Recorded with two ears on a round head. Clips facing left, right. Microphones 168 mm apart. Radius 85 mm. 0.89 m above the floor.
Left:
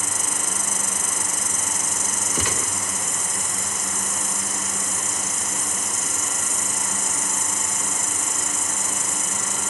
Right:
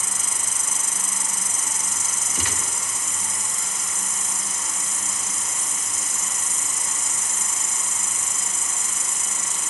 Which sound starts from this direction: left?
A gunshot, at 2.4 s.